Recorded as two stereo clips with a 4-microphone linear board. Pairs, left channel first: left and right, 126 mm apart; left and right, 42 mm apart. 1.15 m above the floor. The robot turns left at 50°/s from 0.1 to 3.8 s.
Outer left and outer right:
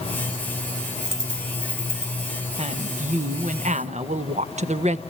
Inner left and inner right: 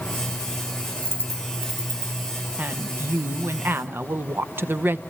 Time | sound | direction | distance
1.0 | a dropped coin | 60° left (ahead or behind) | 2.5 m
2.6 | a woman speaking | 55° right | 0.8 m